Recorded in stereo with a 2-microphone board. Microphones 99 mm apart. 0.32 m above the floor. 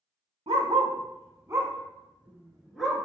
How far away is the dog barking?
About 0.6 m.